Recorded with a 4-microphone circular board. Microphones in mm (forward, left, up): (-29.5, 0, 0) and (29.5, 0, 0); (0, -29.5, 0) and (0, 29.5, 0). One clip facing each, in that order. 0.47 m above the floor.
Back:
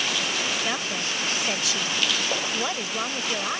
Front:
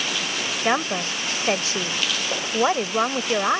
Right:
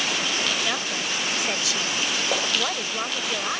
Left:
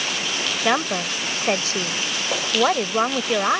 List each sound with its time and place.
0.7 s a woman speaking: 45° left